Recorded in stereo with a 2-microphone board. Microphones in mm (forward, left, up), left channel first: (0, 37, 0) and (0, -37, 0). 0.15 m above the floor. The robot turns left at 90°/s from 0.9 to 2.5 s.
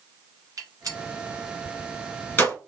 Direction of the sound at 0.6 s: 50° right (ahead or behind).